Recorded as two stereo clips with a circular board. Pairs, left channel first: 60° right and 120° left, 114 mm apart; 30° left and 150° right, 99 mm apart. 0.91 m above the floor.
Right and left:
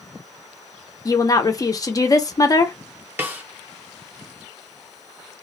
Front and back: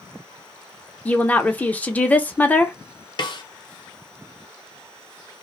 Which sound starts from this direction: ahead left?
A snare drum, at 3.2 s.